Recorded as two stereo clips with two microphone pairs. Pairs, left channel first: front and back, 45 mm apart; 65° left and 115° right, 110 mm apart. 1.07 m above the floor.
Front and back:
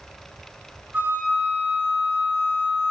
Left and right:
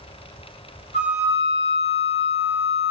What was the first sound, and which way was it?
A flute, 120° right.